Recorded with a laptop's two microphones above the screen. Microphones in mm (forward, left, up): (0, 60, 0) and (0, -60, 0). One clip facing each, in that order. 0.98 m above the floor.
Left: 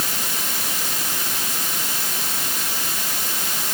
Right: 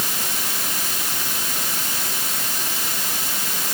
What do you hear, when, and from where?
Only background noise.